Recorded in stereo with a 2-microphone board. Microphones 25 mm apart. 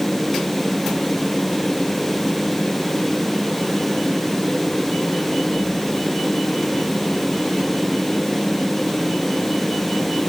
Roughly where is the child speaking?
No child speaking in this recording.